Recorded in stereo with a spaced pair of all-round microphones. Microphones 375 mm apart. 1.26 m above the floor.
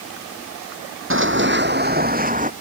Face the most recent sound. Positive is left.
turn(degrees=-20)  # may be behind; listen again after turning